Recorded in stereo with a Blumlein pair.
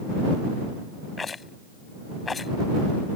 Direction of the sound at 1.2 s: 15° left.